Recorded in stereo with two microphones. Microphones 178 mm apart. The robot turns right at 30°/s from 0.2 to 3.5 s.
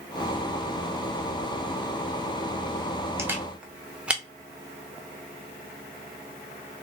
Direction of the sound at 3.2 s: 15° right (ahead or behind).